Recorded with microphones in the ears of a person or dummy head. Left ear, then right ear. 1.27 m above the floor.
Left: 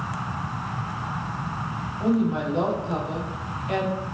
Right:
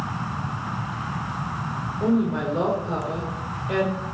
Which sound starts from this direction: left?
A woman speaking, at 2.0 s.